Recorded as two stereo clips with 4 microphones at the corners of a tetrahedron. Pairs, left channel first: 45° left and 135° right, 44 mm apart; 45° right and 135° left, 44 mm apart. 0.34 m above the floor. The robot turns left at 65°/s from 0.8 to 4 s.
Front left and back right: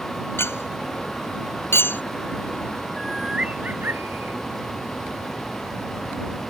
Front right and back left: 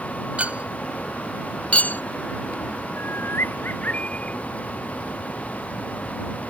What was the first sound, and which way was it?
A clink, 75° left.